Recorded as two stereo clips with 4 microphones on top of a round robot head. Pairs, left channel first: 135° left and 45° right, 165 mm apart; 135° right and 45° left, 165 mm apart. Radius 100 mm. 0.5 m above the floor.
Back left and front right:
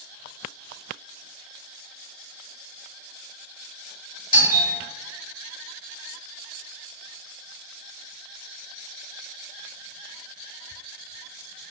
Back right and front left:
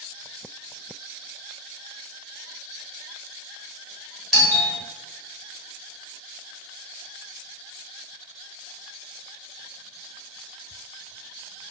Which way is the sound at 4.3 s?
135° left.